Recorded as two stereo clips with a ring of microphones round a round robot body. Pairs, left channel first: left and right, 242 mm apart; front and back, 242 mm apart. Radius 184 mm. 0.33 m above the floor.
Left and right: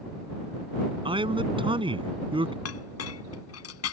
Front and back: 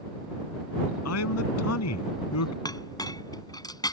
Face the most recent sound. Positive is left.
turn(degrees=75)